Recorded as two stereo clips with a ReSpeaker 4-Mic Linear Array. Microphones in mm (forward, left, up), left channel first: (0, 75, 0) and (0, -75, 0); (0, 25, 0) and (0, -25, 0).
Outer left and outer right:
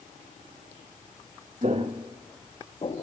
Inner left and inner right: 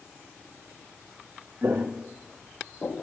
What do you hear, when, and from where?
1.6 s footsteps: 50° right (ahead or behind), 1.0 m; by 3.0 s 40° left (ahead or behind), 1.2 m